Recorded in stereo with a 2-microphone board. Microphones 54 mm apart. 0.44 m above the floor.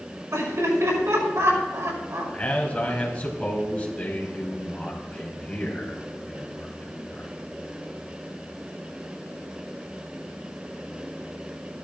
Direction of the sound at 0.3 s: 70° right (ahead or behind).